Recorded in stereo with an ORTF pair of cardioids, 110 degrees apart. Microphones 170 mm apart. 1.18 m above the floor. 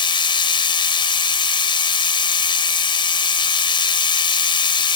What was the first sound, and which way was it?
A machine running, 30° left.